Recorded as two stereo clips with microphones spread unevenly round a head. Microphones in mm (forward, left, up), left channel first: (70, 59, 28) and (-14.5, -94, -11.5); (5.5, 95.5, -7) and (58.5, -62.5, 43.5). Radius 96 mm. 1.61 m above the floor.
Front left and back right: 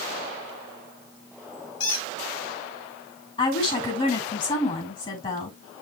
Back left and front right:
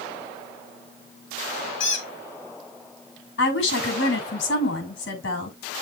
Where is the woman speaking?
125° left, 6 m.